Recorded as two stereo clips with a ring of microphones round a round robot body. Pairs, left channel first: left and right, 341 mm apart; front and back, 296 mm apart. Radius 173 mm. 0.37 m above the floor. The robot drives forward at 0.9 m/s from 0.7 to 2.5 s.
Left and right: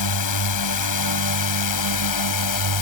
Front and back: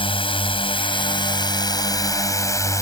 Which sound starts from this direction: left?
A drone, at 0.0 s.